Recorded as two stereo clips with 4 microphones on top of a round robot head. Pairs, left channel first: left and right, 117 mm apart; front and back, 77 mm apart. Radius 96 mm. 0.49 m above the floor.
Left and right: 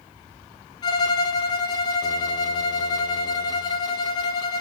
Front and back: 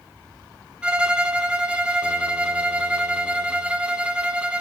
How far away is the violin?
About 1.4 m.